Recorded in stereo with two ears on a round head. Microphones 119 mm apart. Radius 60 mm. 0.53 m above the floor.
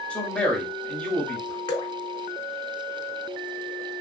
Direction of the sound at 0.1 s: 10° left (ahead or behind).